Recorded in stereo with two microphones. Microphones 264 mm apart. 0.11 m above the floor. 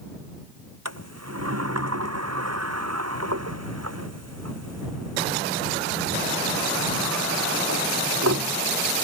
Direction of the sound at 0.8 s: 70° right (ahead or behind).